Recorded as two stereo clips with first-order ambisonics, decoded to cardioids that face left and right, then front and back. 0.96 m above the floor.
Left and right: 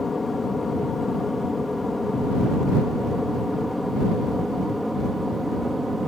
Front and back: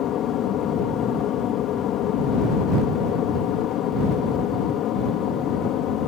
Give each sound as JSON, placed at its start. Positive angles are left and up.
{"t": 0.0, "sound": "an aircraft", "azimuth_deg": 15}